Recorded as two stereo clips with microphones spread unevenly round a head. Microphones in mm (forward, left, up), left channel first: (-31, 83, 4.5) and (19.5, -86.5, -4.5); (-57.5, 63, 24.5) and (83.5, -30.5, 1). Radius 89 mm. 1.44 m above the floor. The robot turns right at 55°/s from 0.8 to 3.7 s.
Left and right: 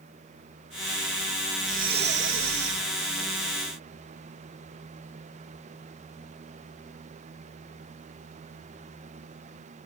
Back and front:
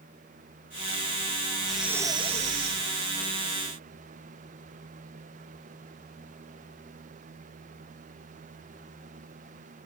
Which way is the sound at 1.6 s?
130° right.